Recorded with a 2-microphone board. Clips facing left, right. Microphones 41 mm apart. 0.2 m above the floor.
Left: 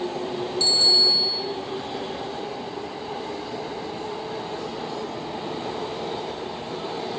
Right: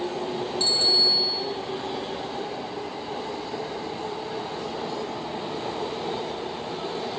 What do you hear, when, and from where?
0.6 s a bicycle bell: 35° right (ahead or behind), 4 m